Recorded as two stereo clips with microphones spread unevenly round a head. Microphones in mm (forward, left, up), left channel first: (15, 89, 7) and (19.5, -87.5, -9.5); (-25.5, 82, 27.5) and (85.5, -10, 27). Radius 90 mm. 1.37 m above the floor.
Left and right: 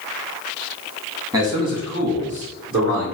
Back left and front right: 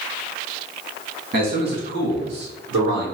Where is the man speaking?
15° right, 1.9 m; by 3.1 s 45° right, 2.5 m.